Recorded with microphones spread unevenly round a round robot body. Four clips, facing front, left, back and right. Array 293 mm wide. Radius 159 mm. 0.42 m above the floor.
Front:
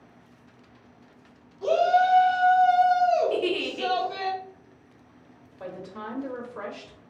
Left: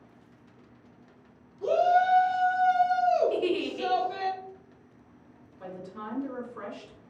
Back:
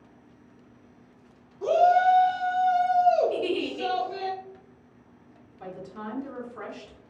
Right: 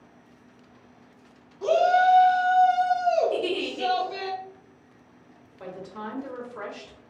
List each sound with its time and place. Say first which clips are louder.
1.6 s a shout: right 3 dB, back 1 dB; 145° right, 1.2 m; by 4.3 s 55° left, 1.5 m
3.3 s a giggle: even, front 1 dB; 10° left, 1.3 m
5.6 s a woman speaking: right 3 dB, front 1 dB; 40° right, 1.9 m